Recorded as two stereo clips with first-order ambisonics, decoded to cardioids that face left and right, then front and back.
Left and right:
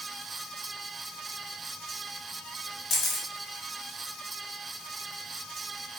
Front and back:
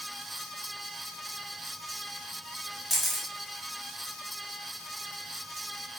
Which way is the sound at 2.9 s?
80° left.